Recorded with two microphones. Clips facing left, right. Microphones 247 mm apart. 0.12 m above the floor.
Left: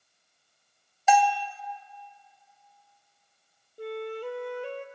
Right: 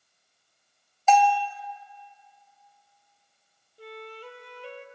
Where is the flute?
55° left (ahead or behind), 0.9 m.